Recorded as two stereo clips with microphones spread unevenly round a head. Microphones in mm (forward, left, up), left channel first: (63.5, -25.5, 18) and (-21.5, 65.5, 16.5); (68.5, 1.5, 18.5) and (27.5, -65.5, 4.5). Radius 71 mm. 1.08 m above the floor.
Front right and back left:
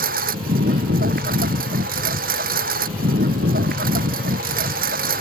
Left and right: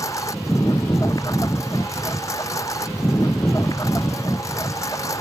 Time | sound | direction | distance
0.0 | a lawn mower | 125° left | ?